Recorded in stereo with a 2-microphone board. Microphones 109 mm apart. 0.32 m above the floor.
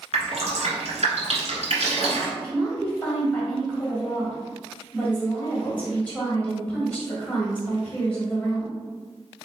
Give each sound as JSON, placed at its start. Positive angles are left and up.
{"t": 0.1, "sound": "dripping", "side_deg": -80, "distance_m": 1.4}
{"t": 2.4, "sound": "a woman speaking", "side_deg": 15, "distance_m": 1.9}